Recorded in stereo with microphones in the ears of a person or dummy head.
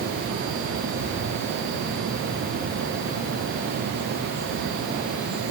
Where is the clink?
I don't hear a clink.